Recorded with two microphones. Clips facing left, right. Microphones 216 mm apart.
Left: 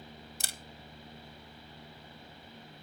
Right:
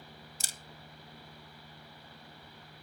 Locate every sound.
0.4 s a camera shutter: 65° left (ahead or behind), 0.6 m